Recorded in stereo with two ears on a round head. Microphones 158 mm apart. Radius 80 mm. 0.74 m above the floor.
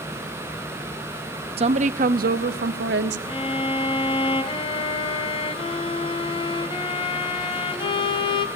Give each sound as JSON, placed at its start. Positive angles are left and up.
{"t": 1.6, "sound": "a woman speaking", "side_deg": -35, "distance_m": 0.8}
{"t": 3.3, "sound": "a violin", "side_deg": 30, "distance_m": 1.3}